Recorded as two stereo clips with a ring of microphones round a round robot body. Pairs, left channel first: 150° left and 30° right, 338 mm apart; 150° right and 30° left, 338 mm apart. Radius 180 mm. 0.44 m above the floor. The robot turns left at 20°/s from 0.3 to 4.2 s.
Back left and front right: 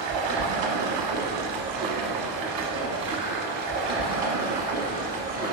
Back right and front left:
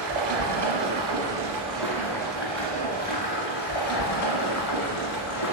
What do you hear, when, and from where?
0.0 s running water: 30° right, 1.1 m; by 5.5 s 110° right, 1.1 m